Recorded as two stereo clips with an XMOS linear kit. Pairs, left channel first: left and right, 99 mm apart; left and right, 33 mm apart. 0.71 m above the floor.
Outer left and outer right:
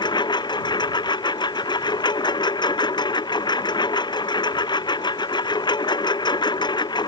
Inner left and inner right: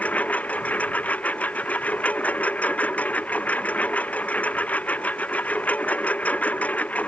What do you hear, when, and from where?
0.0 s a lawn mower: 50° left (ahead or behind)